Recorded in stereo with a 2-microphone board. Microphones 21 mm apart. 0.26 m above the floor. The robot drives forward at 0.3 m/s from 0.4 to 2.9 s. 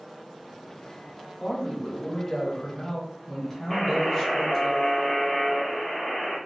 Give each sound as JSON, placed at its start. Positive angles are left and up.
{"t": 1.4, "sound": "a man speaking", "side_deg": 20, "distance_m": 1.1}
{"t": 3.7, "sound": "a buzzer", "side_deg": 10, "distance_m": 1.8}